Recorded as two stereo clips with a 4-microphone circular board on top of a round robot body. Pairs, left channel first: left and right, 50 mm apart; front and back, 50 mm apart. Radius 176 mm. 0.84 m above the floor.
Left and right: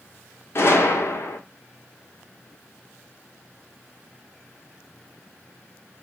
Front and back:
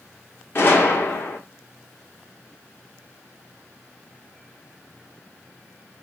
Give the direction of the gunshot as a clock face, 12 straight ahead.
10 o'clock.